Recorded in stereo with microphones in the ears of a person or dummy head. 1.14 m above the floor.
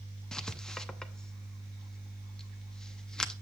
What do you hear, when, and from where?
0.3 s writing: 5° left (ahead or behind), 0.6 m